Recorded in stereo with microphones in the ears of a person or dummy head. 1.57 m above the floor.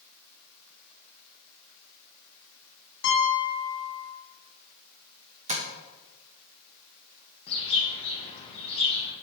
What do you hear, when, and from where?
3.0 s a piano: 55° left (ahead or behind), 2.5 m
5.5 s tapping: 40° right (ahead or behind), 1.3 m
7.5 s a bird: 20° left (ahead or behind), 1.7 m